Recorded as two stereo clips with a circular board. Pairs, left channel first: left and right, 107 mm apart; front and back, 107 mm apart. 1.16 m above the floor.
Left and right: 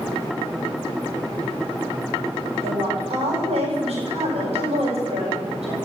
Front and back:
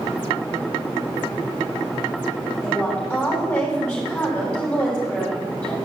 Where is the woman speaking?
80° right, 9 m.